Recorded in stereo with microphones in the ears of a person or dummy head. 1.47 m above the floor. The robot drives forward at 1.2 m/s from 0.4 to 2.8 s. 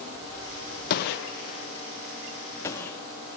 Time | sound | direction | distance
0.9 | a gunshot | 50° left (ahead or behind) | 0.7 m